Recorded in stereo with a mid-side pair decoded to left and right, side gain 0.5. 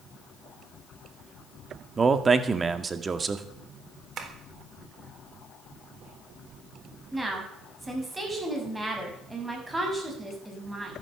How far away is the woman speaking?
About 7.5 m.